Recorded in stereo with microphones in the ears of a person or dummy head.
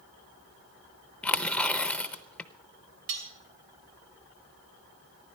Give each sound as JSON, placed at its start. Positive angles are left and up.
{"t": 1.2, "sound": "tearing paper", "side_deg": 5, "distance_m": 0.7}
{"t": 3.1, "sound": "cutlery clinking", "side_deg": -70, "distance_m": 2.5}